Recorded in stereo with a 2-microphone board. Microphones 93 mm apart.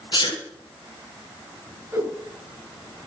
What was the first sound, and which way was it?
A sneeze, 55° left (ahead or behind).